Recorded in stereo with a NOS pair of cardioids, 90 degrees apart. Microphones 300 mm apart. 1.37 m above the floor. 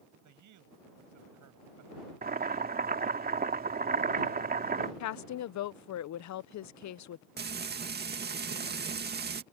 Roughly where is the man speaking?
Right.